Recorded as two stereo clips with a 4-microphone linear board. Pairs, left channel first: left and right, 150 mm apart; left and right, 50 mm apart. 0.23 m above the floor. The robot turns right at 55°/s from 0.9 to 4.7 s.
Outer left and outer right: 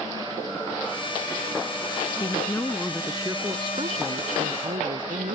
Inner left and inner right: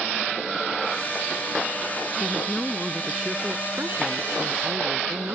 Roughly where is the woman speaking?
Behind left.